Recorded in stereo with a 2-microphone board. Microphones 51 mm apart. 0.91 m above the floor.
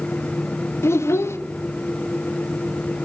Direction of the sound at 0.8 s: 60° left (ahead or behind).